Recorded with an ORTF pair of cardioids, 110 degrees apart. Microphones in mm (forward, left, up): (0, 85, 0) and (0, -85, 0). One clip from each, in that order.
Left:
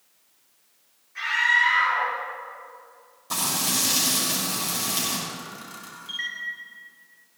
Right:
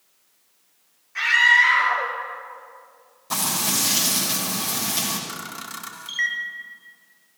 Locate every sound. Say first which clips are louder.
1.1 s a scream: right 5 dB; 50° right, 5.5 m
3.3 s frying: right 1 dB; 5° right, 6 m
5.3 s a camera shutter: right 4 dB; 55° right, 1.7 m